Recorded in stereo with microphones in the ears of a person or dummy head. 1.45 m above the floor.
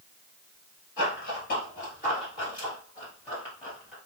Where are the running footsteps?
45° left (ahead or behind), 1.9 m; by 4.0 s 10° left (ahead or behind), 1.7 m.